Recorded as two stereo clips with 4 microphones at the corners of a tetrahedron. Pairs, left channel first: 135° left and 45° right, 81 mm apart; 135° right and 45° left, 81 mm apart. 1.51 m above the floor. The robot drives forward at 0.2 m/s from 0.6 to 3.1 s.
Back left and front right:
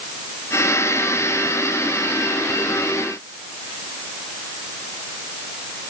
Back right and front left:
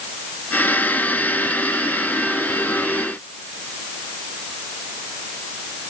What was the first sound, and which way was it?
Only background noise.